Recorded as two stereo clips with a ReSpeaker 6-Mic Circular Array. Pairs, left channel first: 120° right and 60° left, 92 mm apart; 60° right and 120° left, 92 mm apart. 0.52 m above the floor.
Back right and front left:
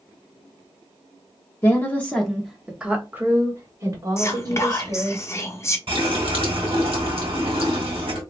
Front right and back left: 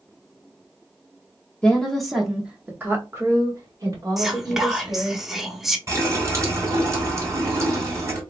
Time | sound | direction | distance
1.6 | a woman speaking | 125° right | 1.0 m
4.2 | whispering | 155° right | 0.8 m
5.9 | a running tap | 60° left | 1.6 m